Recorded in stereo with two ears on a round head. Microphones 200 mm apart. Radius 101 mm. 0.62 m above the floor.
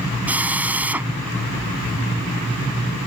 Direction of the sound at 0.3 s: 5° right (ahead or behind).